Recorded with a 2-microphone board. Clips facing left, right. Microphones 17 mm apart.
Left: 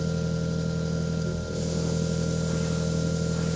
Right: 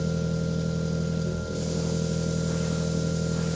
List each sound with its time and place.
0.0 s an engine running: 15° left (ahead or behind), 5 m